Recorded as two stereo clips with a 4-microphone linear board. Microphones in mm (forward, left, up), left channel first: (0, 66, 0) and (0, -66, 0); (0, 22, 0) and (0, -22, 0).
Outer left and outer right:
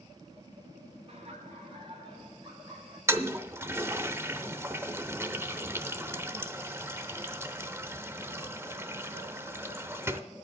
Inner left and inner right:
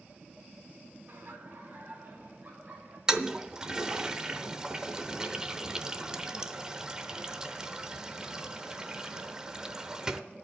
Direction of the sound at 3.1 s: 20° right (ahead or behind).